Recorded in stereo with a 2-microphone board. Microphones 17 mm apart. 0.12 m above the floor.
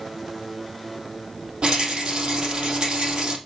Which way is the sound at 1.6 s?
70° right (ahead or behind).